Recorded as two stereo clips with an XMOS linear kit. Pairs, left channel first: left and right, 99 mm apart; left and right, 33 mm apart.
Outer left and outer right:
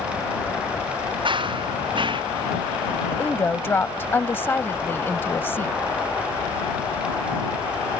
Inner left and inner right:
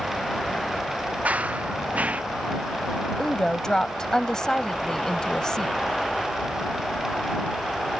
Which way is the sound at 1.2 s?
55° right (ahead or behind).